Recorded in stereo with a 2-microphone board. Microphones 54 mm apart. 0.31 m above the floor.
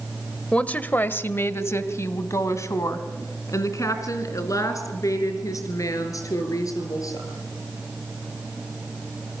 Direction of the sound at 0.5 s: 20° left (ahead or behind).